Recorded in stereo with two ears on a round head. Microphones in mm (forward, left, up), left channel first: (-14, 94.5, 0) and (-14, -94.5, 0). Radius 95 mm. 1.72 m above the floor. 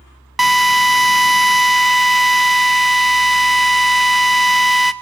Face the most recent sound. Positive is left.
turn(degrees=0)  # may be behind; listen again after turning